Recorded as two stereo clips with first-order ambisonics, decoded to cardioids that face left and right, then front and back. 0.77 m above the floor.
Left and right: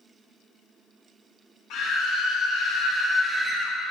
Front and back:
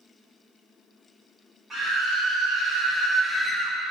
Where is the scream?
100° left, 1.5 m; by 3.8 s 100° right, 1.1 m.